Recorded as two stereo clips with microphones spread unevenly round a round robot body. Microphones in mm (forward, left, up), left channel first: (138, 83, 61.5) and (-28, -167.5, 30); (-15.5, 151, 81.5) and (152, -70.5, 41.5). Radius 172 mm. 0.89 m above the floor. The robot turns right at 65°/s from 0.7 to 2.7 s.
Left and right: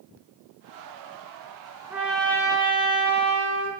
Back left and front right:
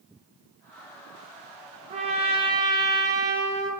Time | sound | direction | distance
1.9 | a trumpet | 60° right | 0.6 m